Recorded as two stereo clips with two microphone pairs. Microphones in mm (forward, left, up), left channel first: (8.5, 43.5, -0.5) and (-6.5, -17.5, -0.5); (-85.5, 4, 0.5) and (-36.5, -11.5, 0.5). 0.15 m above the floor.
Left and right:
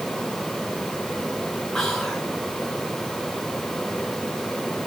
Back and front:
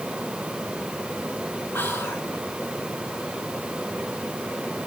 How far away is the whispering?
About 2.0 m.